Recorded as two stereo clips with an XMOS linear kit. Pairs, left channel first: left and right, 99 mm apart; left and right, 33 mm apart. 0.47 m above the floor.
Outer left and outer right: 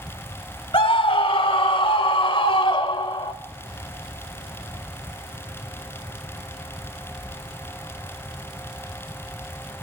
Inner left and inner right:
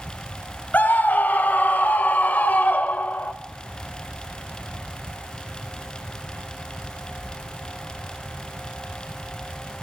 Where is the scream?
65° left (ahead or behind), 2.5 m; by 3.3 s 55° left (ahead or behind), 1.5 m.